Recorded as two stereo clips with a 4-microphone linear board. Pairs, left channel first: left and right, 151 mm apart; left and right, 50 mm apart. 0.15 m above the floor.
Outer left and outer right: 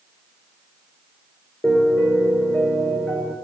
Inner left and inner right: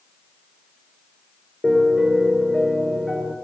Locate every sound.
1.6 s a piano: 10° left (ahead or behind), 2.5 m